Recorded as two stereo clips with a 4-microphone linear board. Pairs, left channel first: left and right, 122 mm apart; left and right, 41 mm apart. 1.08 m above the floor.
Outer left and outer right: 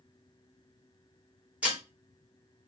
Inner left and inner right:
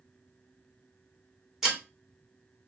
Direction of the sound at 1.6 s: 10° right (ahead or behind).